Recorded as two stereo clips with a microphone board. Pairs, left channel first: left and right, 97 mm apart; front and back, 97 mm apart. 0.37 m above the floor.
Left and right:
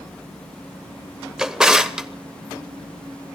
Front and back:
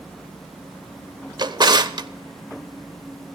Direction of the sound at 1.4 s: 170° right.